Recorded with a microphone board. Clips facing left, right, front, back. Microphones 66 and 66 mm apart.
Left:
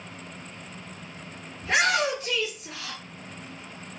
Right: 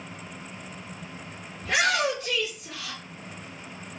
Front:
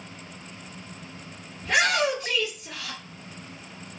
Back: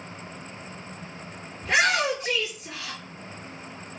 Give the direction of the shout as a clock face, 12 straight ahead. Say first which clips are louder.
Left 1 dB, even; 7 o'clock.